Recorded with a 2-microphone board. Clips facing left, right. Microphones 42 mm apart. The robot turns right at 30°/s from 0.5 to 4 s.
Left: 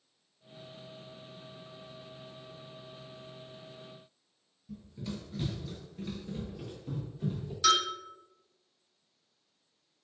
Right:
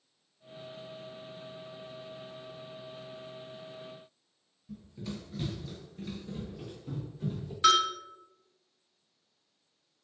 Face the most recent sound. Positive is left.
turn(degrees=-30)  # may be behind; listen again after turning